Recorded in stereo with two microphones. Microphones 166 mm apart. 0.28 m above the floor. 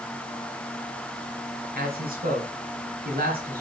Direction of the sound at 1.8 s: 65° right (ahead or behind).